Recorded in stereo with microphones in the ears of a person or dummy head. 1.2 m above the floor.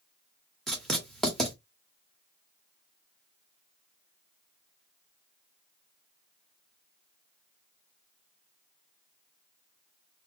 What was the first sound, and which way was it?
Writing, 5° left (ahead or behind).